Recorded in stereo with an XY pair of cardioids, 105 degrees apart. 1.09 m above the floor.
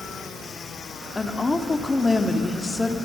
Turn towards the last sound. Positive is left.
turn(degrees=20)